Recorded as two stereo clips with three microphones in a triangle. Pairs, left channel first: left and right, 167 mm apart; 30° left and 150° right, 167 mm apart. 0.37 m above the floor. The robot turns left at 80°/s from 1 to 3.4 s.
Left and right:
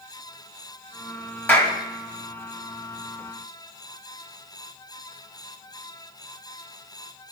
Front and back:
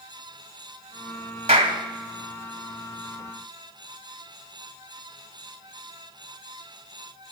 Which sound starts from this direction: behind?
A clap, at 1.5 s.